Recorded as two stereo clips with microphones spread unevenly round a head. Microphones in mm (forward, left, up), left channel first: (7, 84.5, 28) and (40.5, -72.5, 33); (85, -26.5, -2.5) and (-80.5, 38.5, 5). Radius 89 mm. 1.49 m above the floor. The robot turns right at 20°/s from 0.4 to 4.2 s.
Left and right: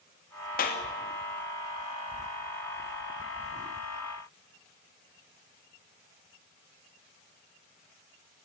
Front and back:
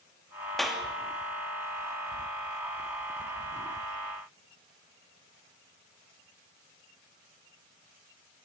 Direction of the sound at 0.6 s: 70° left.